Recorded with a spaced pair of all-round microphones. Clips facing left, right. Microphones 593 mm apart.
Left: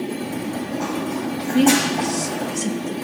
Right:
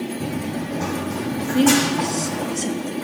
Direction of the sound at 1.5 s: 35° left (ahead or behind).